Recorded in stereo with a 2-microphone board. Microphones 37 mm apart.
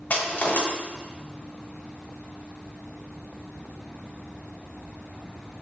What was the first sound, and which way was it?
Crushing, 55° left (ahead or behind).